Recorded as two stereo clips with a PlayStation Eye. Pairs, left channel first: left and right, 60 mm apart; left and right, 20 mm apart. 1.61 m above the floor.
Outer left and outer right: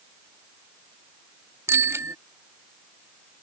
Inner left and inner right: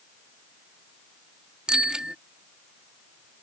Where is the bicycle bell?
50° right (ahead or behind).